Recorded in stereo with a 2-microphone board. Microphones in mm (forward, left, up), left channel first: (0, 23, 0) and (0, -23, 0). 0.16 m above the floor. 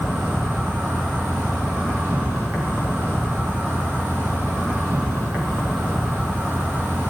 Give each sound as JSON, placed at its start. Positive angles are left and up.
{"t": 0.0, "sound": "an insect", "side_deg": -35, "distance_m": 3.5}